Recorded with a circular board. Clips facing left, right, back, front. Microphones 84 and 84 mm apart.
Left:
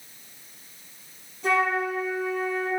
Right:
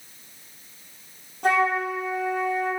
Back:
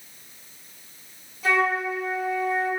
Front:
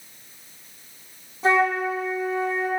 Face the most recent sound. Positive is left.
turn(degrees=-60)